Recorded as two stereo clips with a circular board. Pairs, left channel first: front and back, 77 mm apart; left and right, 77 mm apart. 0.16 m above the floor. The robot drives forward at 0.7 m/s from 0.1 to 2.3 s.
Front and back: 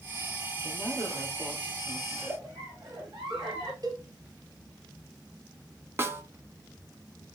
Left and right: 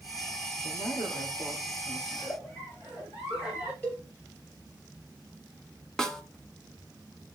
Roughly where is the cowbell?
Behind left.